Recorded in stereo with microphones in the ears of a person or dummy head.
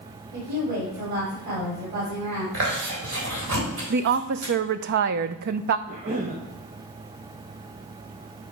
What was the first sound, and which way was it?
A woman speaking, 55° right (ahead or behind).